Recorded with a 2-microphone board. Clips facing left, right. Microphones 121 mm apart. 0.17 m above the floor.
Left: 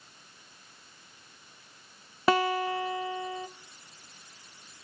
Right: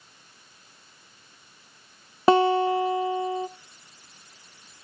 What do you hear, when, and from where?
2.3 s a guitar: 25° right (ahead or behind), 0.7 m